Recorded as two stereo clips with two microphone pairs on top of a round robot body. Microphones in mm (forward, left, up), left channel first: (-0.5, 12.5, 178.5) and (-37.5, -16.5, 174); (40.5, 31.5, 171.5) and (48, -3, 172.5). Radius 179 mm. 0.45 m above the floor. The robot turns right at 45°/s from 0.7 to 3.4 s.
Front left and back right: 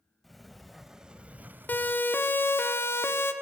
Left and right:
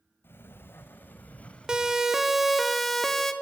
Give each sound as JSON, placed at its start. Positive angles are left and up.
{"t": 0.2, "sound": "a sliding door", "azimuth_deg": 125, "distance_m": 0.5}
{"t": 1.7, "sound": "a siren", "azimuth_deg": -10, "distance_m": 2.5}